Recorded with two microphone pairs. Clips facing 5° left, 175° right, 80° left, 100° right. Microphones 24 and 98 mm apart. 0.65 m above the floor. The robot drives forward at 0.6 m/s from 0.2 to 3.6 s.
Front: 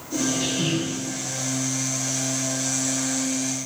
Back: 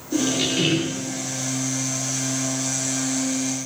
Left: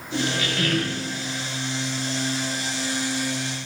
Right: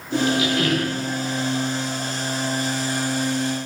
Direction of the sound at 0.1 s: 175° right.